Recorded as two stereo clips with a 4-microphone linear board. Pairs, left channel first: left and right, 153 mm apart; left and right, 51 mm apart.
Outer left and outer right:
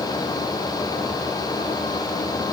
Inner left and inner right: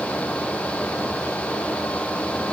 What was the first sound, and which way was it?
Only background noise.